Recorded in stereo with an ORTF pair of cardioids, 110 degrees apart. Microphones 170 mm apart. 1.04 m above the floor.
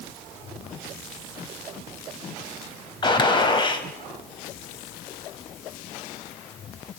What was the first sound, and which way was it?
A gunshot, 25° left.